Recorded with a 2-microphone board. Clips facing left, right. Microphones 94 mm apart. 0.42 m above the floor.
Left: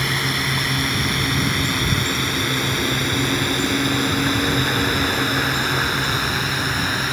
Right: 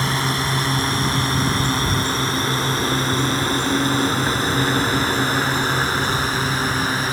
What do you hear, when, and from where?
0.0 s a drone: 30° right (ahead or behind); by 7.1 s 35° right (ahead or behind)